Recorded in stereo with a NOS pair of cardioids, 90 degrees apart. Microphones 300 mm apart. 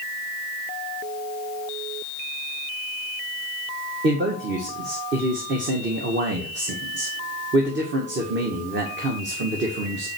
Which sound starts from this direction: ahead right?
A man speaking, at 4.0 s.